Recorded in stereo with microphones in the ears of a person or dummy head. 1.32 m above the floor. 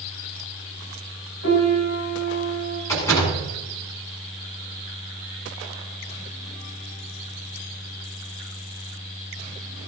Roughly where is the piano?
Left.